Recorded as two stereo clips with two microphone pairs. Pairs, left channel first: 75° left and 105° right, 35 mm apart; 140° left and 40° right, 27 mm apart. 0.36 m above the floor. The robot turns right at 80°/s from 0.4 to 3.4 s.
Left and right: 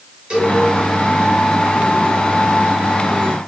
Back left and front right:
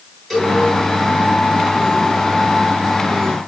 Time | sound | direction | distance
0.3 | a cowbell | 135° right | 1.6 m